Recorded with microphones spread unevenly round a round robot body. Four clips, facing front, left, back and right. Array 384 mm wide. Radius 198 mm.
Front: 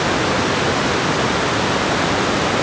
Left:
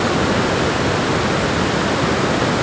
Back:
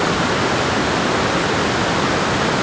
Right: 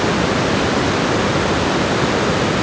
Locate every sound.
Only background noise.